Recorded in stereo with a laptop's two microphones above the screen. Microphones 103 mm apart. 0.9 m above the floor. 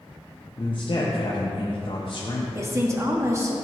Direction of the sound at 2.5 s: 30° right (ahead or behind).